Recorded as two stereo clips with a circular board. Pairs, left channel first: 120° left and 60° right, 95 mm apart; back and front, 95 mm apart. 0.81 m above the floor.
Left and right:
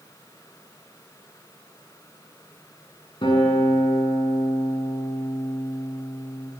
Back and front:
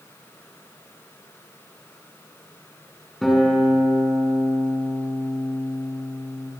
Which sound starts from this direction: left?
A guitar, at 3.2 s.